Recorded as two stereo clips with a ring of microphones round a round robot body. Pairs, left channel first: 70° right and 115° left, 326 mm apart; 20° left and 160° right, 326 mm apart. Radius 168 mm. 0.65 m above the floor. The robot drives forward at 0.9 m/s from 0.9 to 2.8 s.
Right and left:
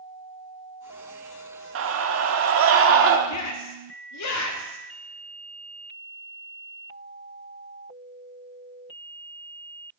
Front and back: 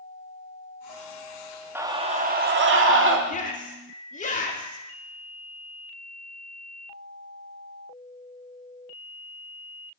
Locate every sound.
1.8 s a scream: 120° left, 1.2 m; by 3.2 s 155° left, 1.7 m
3.3 s a shout: 40° right, 2 m